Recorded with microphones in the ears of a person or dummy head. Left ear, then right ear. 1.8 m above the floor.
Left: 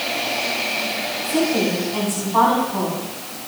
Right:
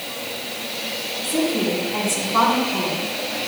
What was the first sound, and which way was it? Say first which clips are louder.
A woman speaking: left 1 dB; 5° right (ahead or behind).